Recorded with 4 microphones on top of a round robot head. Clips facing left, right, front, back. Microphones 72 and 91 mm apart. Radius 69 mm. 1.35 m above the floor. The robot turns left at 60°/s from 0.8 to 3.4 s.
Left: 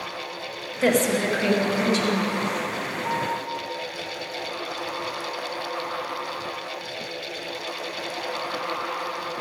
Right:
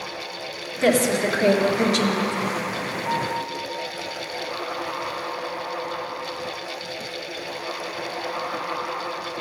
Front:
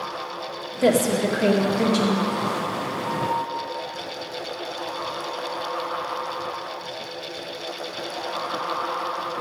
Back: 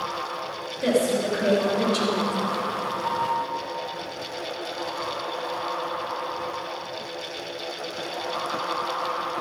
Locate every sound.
0.8 s a woman speaking: 5° left, 2 m; by 2.4 s 85° right, 2 m
3.0 s a piano: 100° right, 4.5 m; by 3.4 s 120° right, 4.5 m